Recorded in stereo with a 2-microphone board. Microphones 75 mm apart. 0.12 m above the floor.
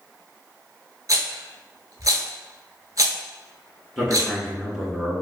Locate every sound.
1.1 s a rattle: 50° right (ahead or behind), 0.7 m
4.0 s a man speaking: 5° right (ahead or behind), 1.1 m